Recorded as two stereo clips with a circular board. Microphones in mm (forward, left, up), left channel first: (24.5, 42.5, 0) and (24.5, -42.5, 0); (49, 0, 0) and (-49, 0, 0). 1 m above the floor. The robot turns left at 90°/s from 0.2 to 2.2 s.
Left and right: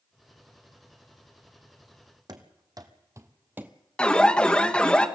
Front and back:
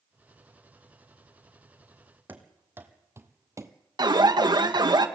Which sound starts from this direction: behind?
An alarm, at 4.0 s.